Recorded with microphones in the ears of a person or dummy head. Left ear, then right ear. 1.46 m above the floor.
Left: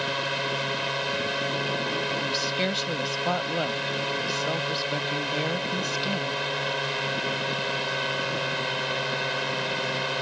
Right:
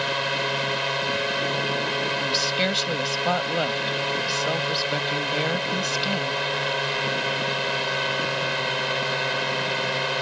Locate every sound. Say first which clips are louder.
0.0 s a drone: right 3 dB; 15° right (ahead or behind)
2.2 s a woman speaking: right 3 dB; 10° right (ahead or behind)